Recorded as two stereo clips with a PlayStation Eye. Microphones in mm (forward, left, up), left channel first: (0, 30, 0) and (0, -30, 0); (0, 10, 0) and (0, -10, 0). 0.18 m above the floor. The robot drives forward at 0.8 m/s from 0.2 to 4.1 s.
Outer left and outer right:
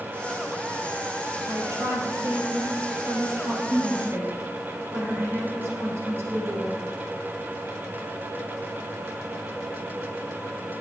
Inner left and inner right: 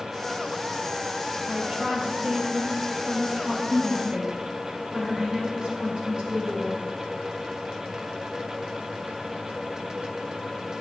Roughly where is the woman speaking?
Right.